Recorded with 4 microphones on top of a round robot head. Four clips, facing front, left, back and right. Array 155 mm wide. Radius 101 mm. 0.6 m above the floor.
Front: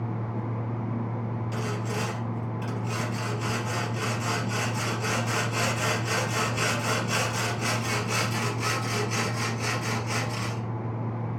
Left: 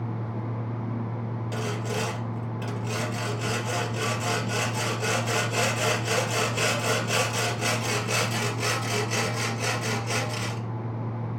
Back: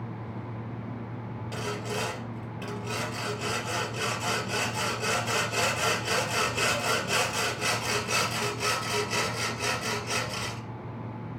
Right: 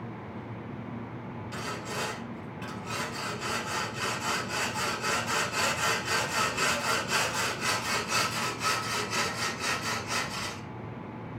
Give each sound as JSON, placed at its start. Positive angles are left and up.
{"t": 1.5, "sound": "sawing", "azimuth_deg": 120, "distance_m": 3.0}